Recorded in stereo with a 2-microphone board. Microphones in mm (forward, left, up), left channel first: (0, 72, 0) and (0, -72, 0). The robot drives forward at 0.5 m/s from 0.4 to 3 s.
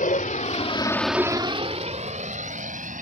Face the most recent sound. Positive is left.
turn(degrees=-65)  # may be behind; listen again after turning